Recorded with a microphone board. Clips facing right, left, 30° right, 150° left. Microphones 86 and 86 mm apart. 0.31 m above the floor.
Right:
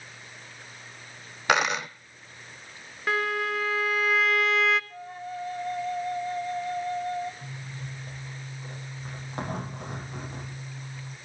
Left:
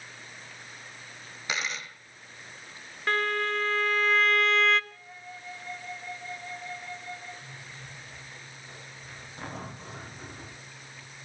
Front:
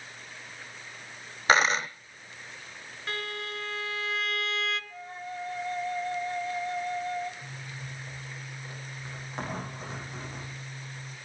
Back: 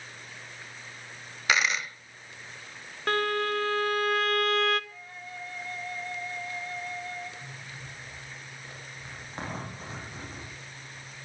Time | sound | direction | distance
1.5 | a dropped coin | 80° right | 0.7 m
3.1 | a violin | 175° right | 0.6 m
4.9 | a flute | 80° right | 1.4 m
7.4 | a zipper | 120° right | 9.5 m